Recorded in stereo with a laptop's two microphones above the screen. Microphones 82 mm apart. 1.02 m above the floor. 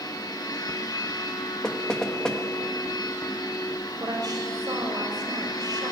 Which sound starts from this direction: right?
A woman speaking, at 4.0 s.